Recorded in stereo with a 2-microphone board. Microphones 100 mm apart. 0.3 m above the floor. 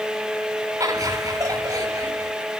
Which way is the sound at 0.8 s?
35° right (ahead or behind).